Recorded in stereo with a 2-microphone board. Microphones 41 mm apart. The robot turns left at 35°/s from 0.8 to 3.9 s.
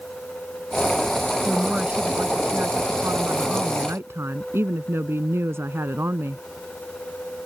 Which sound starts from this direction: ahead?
A woman speaking, at 1.4 s.